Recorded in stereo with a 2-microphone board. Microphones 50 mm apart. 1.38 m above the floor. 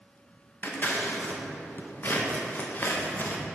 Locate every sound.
0.6 s scissors: 40° left (ahead or behind), 0.8 m